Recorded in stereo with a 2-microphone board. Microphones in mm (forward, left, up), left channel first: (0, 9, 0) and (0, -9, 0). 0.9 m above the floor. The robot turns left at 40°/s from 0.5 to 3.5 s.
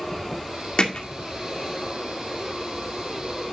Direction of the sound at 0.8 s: 60° left (ahead or behind).